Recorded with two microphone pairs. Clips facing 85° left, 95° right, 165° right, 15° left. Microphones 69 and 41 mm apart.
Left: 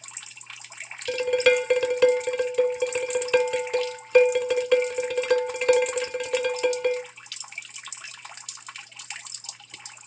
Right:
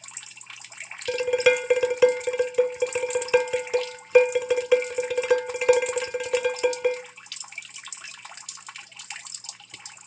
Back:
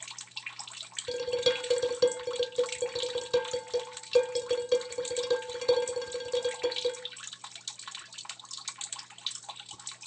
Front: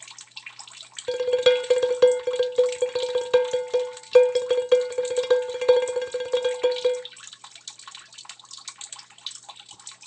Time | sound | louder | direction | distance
1.1 | dishes clattering | even, front 9 dB | 20° right | 0.9 m